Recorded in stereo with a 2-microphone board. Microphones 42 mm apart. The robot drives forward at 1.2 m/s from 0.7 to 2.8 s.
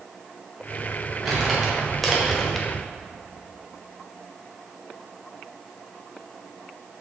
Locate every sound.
1.2 s crumpling: centre (ahead or behind), 2 m